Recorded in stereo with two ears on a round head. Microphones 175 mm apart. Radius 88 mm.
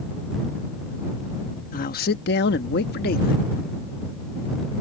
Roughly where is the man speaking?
Left.